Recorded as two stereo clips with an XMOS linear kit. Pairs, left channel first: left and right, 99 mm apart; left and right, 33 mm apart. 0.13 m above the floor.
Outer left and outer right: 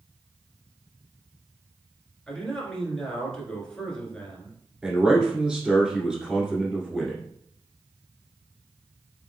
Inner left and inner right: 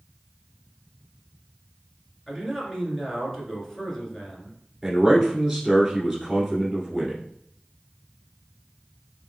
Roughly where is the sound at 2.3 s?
Centre.